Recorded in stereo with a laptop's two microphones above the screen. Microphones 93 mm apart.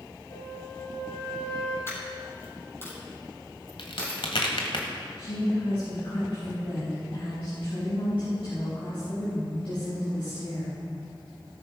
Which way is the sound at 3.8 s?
75° left (ahead or behind).